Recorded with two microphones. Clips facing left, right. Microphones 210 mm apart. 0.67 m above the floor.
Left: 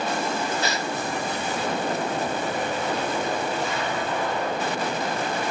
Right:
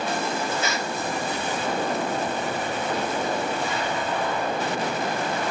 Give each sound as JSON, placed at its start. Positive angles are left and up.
{"t": 0.6, "sound": "a gasp", "side_deg": 35, "distance_m": 0.9}